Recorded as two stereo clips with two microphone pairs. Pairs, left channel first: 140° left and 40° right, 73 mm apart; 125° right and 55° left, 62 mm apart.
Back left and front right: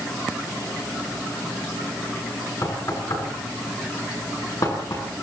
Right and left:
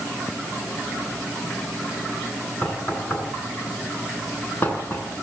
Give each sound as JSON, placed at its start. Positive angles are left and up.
{"t": 2.6, "sound": "knocking", "azimuth_deg": 180, "distance_m": 7.5}